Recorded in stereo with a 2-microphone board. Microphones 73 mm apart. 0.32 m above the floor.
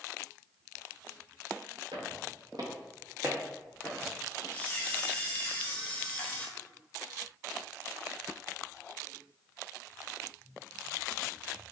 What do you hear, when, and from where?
1.9 s footsteps: 80° right, 1.6 m; by 4.1 s 20° left (ahead or behind), 1.5 m
4.5 s a camera shutter: 20° left (ahead or behind), 1.0 m